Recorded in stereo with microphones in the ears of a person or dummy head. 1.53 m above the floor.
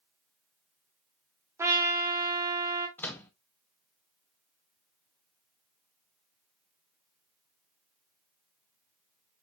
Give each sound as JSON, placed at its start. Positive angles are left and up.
{"t": 1.6, "sound": "a trumpet", "side_deg": -15, "distance_m": 0.9}
{"t": 3.0, "sound": "a microwave", "side_deg": 10, "distance_m": 0.6}